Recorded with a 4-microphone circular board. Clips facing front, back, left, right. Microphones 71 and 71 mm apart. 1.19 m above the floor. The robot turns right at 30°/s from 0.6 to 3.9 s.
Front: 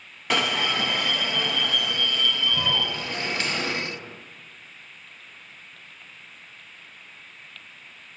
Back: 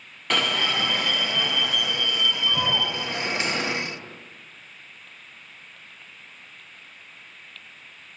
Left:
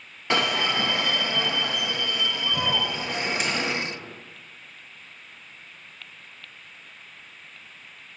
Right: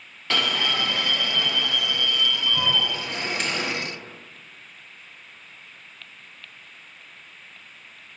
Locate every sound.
0.3 s an alarm: 75° left, 0.7 m; by 3.8 s 170° left, 0.7 m